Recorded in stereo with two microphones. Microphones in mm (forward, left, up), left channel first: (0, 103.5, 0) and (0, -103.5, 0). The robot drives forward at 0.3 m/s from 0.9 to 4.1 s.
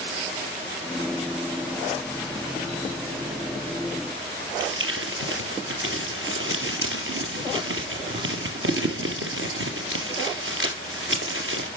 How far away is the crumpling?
About 1.2 m.